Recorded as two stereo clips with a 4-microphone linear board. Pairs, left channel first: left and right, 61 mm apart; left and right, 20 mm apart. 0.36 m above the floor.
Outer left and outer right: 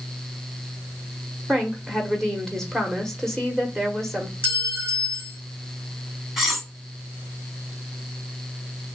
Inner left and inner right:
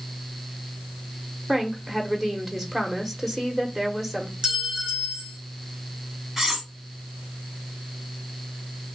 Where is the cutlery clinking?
5° right (ahead or behind), 1.5 m.